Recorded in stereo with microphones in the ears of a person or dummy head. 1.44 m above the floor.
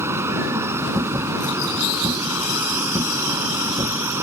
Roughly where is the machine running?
Centre.